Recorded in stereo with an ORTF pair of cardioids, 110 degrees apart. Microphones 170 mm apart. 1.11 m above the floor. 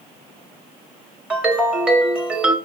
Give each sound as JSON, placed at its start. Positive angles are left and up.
{"t": 1.3, "sound": "a ringtone", "azimuth_deg": -5, "distance_m": 1.6}